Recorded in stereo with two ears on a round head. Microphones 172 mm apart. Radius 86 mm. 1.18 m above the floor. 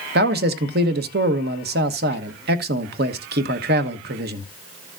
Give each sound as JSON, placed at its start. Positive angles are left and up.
{"t": 0.1, "sound": "a man speaking", "side_deg": -55, "distance_m": 1.0}